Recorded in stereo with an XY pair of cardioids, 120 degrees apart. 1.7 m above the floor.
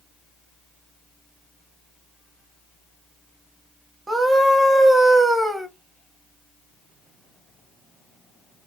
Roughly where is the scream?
Ahead.